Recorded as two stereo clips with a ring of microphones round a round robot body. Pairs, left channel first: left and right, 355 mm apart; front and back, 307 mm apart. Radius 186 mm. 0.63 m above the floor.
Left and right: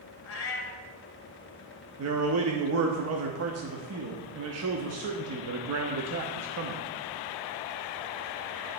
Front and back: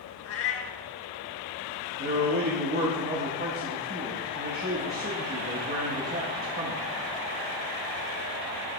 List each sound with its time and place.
0.2 s a cat meowing: 40° left, 1.0 m
2.0 s a man speaking: 125° right, 0.8 m